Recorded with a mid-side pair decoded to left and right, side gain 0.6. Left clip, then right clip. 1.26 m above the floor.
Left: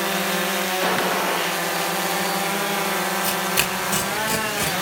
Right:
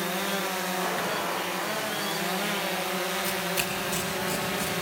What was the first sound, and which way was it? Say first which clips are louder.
A gunshot: left 9 dB; 50° left.